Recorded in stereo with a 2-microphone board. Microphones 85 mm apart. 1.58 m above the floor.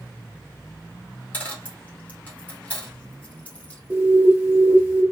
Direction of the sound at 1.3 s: 20° left (ahead or behind).